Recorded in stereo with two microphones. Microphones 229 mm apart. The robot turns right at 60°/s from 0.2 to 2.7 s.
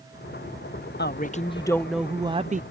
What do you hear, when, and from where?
1.0 s a woman speaking: 125° left; by 2.6 s 140° right